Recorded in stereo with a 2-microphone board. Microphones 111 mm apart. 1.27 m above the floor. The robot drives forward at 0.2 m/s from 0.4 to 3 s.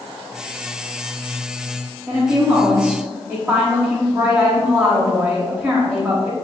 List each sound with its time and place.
2.1 s a woman speaking: 15° right (ahead or behind), 1.3 m